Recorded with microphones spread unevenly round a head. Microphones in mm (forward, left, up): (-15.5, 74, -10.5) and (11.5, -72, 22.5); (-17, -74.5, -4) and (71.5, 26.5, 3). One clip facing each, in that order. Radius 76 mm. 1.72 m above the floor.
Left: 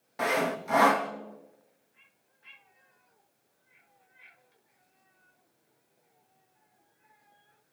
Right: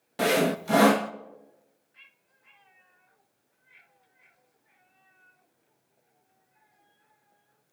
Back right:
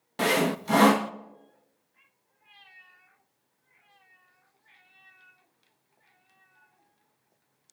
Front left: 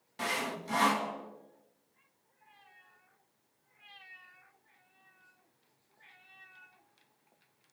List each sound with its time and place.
0.2 s sawing: 115° right, 0.6 m